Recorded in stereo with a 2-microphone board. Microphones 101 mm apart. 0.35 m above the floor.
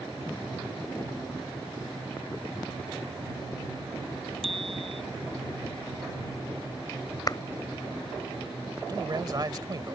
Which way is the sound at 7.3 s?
45° left (ahead or behind).